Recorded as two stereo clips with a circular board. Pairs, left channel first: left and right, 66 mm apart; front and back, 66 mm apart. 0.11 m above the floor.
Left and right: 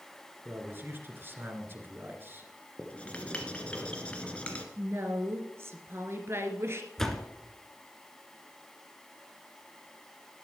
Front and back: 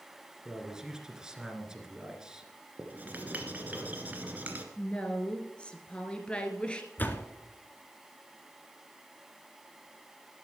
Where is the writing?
145° left, 1.7 m.